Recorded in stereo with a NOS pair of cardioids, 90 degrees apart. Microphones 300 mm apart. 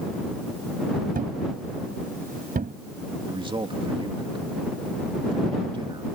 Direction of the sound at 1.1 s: 30° right.